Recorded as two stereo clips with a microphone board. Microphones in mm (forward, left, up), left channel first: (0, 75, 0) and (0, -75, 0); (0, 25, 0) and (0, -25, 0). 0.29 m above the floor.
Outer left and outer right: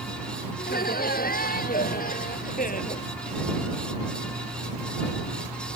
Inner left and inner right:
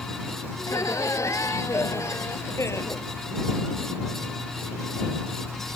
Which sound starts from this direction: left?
Laughter, at 0.6 s.